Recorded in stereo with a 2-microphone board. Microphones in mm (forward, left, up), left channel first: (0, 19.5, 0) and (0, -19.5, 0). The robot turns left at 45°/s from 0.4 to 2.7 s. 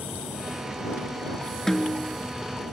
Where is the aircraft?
65° right (ahead or behind); by 2.7 s 5° left (ahead or behind).